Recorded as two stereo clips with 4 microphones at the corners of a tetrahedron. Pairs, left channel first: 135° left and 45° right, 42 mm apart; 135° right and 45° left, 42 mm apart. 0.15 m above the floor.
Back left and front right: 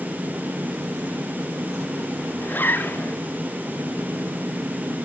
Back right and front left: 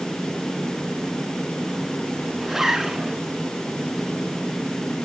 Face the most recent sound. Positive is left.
turn(degrees=125)